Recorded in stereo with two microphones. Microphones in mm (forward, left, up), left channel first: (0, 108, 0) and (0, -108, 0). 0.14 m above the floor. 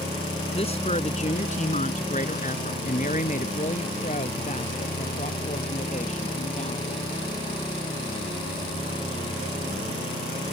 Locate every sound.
0.6 s a woman speaking: 30° left (ahead or behind); by 7.1 s 35° left (ahead or behind)